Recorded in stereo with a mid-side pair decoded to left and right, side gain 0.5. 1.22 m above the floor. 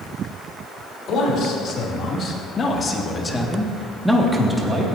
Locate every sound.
1.1 s a man speaking: 65° left, 4 m; by 4.8 s 30° right, 2.5 m